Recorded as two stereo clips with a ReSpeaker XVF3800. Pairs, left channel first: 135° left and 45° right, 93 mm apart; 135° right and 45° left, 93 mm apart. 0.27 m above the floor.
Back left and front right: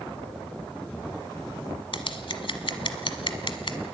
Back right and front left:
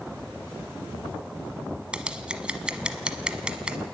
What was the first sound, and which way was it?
Scissors, 125° left.